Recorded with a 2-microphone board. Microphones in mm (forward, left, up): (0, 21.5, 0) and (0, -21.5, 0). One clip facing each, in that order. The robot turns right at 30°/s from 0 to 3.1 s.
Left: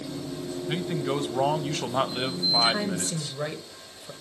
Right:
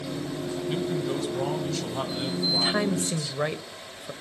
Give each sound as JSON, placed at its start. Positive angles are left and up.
{"t": 0.7, "sound": "a man speaking", "azimuth_deg": 45, "distance_m": 1.3}
{"t": 2.5, "sound": "a woman speaking", "side_deg": -15, "distance_m": 1.1}